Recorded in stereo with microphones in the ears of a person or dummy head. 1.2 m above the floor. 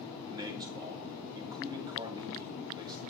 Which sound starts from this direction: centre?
A man speaking, at 0.3 s.